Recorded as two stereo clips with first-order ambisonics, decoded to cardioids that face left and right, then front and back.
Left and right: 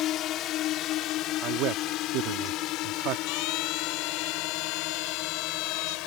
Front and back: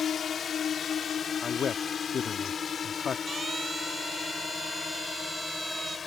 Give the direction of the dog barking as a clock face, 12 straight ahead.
No dog barking in this recording.